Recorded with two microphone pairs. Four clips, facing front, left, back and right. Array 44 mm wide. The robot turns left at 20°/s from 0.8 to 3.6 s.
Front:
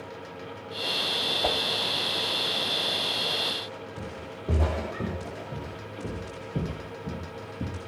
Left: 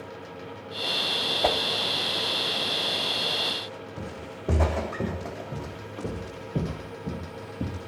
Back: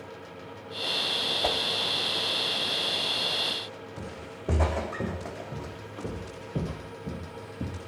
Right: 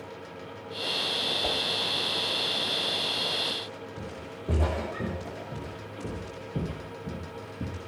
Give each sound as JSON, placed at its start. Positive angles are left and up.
{"t": 1.4, "sound": "a whoosh", "azimuth_deg": 85, "distance_m": 0.8}
{"t": 4.0, "sound": "footsteps", "azimuth_deg": 130, "distance_m": 4.0}